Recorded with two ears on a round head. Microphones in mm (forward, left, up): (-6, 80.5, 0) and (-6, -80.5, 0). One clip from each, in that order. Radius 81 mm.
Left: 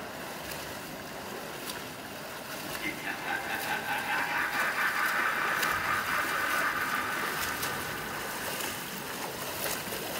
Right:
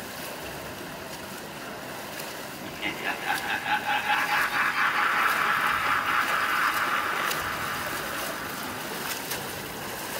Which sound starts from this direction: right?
Laughter, at 2.6 s.